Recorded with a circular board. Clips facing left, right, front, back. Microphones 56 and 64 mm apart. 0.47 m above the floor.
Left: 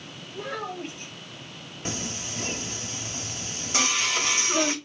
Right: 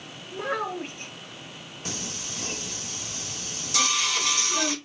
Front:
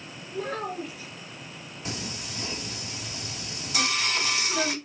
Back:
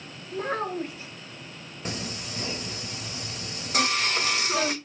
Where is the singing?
140° left, 1.6 m.